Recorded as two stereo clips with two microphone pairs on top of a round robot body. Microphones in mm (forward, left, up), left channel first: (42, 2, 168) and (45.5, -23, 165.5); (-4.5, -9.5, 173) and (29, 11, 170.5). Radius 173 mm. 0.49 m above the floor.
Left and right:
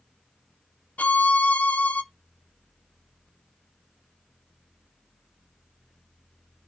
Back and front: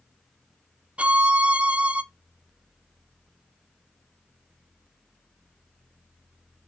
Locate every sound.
1.0 s a violin: 80° left, 0.6 m